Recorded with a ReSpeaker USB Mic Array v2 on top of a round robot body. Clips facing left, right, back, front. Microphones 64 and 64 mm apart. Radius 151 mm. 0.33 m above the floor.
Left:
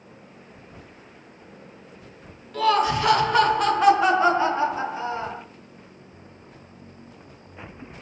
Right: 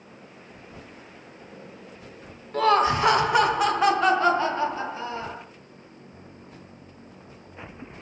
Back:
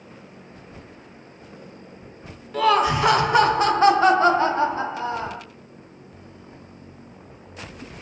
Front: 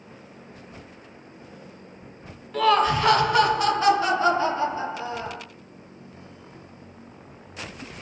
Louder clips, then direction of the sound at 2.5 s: Right 1 dB, back 1 dB; 95° right.